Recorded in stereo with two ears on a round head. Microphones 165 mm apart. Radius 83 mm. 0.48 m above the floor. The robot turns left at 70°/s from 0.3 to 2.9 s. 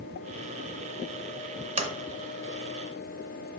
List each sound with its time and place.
1.8 s a sliding door: 35° right (ahead or behind), 0.6 m; by 1.9 s 25° right (ahead or behind), 0.6 m